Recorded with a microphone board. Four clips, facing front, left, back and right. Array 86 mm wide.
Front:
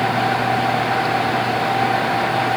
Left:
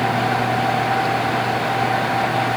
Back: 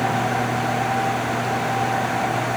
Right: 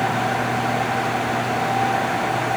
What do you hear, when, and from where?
Only background noise.